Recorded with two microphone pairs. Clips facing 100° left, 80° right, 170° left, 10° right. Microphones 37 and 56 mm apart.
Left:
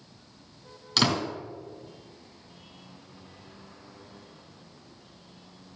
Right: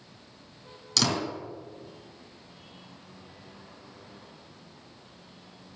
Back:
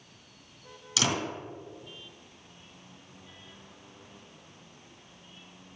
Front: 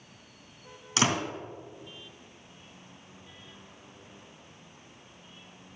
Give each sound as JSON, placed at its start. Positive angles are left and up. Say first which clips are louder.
{"t": 1.0, "sound": "a door slam", "louder": "left 2 dB, front 3 dB", "azimuth_deg": 35, "distance_m": 2.5}